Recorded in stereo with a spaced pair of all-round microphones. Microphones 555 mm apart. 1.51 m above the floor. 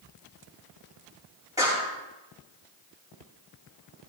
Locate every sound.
1.6 s a clap: 5° right (ahead or behind), 7 m